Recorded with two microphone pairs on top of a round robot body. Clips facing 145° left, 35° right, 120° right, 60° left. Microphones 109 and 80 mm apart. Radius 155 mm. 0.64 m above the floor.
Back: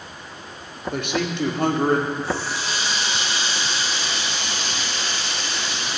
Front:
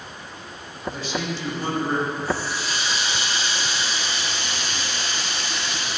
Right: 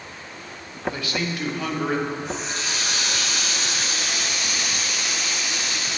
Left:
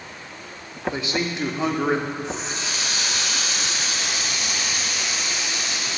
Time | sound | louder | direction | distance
0.9 | a man speaking | back 5 dB, left 4 dB | 125° left | 1.9 m
2.2 | a running tap | even, even | 130° left | 4.5 m